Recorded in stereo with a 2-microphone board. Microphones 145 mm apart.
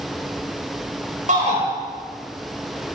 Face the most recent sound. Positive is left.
turn(degrees=-55)  # may be behind; listen again after turning